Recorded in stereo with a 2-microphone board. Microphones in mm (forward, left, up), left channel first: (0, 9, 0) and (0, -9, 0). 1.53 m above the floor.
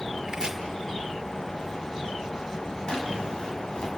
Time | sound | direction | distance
0.3 | chopping | 35° right (ahead or behind) | 1.9 m
2.9 | a drawer | 40° left (ahead or behind) | 4.5 m